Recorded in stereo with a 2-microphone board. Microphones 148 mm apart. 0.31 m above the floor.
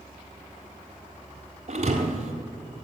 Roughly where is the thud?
Right.